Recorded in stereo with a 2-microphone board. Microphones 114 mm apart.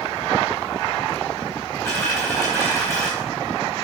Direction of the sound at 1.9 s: 25° left (ahead or behind).